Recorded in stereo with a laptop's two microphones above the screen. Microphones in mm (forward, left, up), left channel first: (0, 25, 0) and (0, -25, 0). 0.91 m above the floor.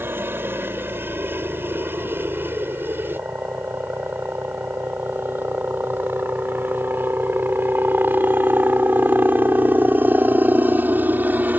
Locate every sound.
0.0 s a helicopter: 45° right (ahead or behind); by 11.6 s 35° right (ahead or behind)